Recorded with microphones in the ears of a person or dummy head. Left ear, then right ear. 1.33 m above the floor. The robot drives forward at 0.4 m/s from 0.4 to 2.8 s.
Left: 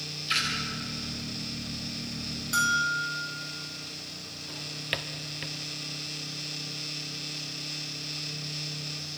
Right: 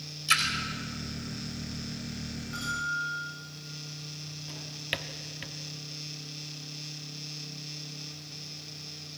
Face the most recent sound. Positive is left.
turn(degrees=5)  # may be behind; listen again after turning